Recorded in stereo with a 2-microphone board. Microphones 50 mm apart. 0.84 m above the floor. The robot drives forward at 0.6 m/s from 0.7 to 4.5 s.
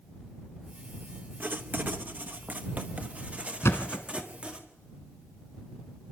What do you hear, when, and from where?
1.4 s writing: 40° right (ahead or behind), 1.2 m; by 4.6 s 20° right (ahead or behind), 2 m
3.6 s a thud: 65° left (ahead or behind), 1.6 m; by 4.3 s 55° left (ahead or behind), 1.7 m